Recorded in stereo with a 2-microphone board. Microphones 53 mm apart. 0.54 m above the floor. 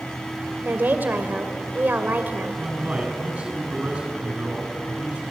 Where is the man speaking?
25° right (ahead or behind), 7 m.